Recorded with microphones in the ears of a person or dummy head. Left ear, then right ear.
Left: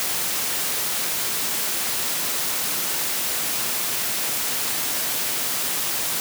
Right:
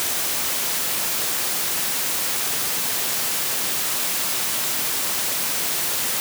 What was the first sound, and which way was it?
Only background noise.